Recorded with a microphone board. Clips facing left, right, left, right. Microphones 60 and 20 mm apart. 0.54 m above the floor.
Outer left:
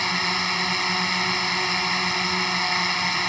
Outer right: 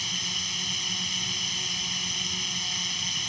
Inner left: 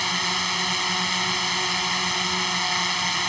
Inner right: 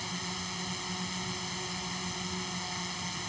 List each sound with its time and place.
0.0 s a drone: 60° left (ahead or behind)